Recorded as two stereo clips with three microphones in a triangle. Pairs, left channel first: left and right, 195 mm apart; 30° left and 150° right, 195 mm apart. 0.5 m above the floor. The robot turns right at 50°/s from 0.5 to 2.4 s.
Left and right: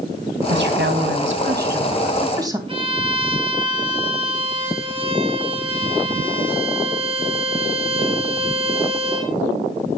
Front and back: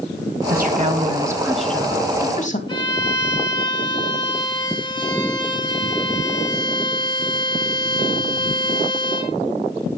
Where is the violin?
35° right, 2.5 m.